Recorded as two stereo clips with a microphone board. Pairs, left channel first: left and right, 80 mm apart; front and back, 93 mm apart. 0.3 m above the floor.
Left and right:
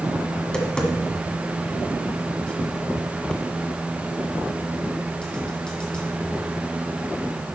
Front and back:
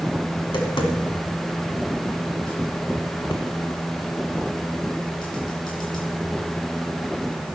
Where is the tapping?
10° left, 1.7 m.